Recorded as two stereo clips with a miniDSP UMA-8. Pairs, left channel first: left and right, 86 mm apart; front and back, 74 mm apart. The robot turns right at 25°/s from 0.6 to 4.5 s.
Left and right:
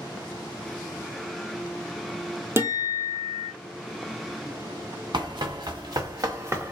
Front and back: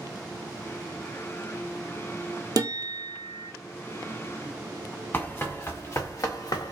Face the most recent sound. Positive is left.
turn(degrees=-30)